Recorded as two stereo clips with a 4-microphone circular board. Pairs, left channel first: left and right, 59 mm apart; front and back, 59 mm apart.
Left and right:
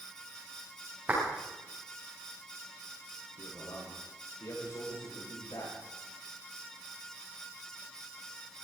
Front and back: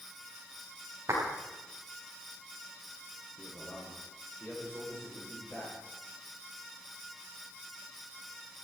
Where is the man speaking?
75° left, 9.5 m.